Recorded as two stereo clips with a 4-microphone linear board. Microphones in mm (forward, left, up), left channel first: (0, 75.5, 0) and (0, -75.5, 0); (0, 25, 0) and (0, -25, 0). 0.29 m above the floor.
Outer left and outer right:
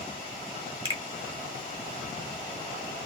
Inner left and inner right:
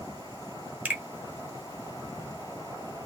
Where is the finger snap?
30° right (ahead or behind), 1.1 m.